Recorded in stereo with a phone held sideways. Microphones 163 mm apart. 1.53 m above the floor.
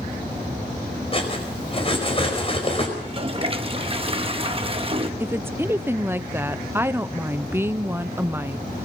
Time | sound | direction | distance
1.1 | cutlery clinking | 35° left (ahead or behind) | 5 m
3.0 | a toilet flushing | 35° right (ahead or behind) | 1.0 m
5.2 | a woman speaking | 15° right (ahead or behind) | 0.6 m